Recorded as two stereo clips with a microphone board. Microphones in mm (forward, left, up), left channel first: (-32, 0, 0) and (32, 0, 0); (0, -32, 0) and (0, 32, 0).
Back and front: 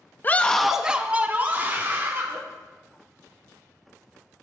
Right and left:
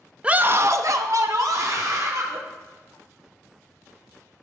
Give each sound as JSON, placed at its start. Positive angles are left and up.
{"t": 0.2, "sound": "a scream", "azimuth_deg": 150, "distance_m": 0.5}